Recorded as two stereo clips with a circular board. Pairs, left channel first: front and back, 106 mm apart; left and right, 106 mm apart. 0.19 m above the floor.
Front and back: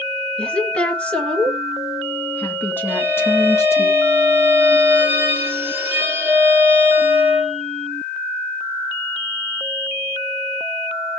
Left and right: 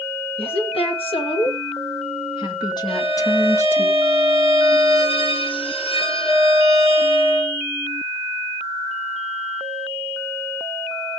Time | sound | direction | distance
0.4 | a woman speaking | 80° left | 3.5 m
2.9 | a violin | 110° left | 2.5 m